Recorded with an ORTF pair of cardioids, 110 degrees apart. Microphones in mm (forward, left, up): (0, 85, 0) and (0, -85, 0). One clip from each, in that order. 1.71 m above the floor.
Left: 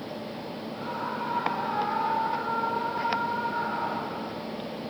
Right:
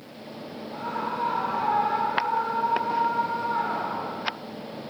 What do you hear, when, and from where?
0.7 s a scream: 55° right, 5 m